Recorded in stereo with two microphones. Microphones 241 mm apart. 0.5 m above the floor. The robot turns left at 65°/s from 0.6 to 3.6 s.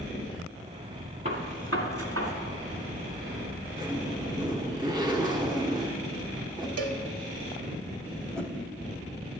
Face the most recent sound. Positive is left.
turn(degrees=5)  # may be behind; listen again after turning